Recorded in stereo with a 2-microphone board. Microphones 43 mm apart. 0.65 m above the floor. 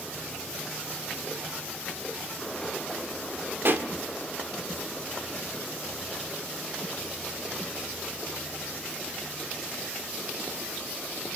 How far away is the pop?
About 1.7 m.